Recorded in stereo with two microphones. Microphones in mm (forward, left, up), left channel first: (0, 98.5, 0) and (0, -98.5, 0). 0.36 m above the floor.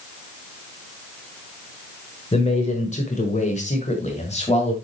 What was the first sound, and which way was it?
A man speaking, 30° left (ahead or behind).